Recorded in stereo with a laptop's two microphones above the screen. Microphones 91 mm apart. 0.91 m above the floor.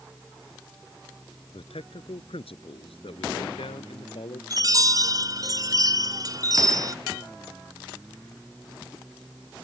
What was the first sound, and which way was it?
A man speaking, 90° left.